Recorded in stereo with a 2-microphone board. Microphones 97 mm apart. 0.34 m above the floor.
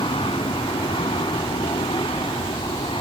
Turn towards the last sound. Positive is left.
turn(degrees=60)  # may be behind; listen again after turning